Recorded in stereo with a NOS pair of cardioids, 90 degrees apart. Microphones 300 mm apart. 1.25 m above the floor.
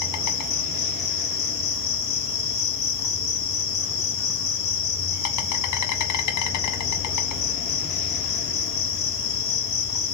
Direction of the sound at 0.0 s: 65° left.